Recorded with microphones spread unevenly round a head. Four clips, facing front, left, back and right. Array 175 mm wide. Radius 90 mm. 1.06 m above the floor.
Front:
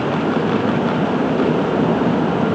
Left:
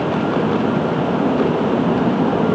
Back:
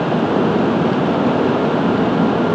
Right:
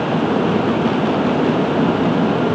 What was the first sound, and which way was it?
Only background noise.